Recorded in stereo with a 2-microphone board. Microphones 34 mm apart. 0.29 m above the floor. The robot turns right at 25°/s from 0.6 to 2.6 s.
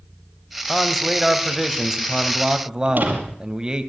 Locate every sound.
0.7 s a man speaking: 165° left, 2 m; by 3.9 s 150° right, 2 m
2.9 s a door slam: 60° right (ahead or behind), 5.5 m